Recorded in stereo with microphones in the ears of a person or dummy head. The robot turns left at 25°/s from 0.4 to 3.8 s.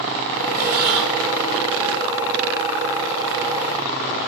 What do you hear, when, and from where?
0.6 s breathing: 50° right (ahead or behind), 3 m; by 1.1 s 60° right (ahead or behind), 3 m